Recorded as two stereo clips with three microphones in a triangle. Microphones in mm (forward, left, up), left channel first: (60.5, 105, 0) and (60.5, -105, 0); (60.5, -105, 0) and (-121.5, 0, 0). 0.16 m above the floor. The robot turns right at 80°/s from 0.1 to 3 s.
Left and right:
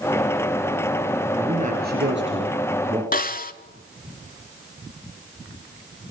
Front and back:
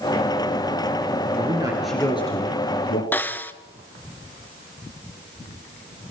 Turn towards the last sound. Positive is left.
turn(degrees=50)